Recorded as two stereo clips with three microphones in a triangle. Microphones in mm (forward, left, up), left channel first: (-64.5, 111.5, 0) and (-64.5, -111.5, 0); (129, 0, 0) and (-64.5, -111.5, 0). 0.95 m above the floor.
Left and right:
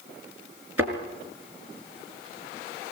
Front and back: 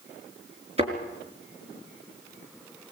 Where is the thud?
85° right, 5 m.